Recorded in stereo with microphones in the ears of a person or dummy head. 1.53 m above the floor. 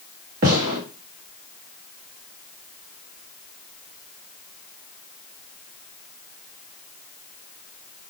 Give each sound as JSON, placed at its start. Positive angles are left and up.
{"t": 0.4, "sound": "a gunshot", "side_deg": -45, "distance_m": 1.2}